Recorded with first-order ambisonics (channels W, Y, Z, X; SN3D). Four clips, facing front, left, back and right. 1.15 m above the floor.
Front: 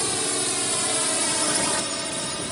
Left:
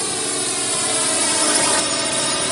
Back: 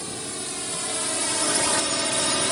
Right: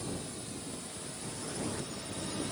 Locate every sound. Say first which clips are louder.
0.0 s a drone: left 17 dB, front 7 dB; 60° left; by 2.5 s 120° left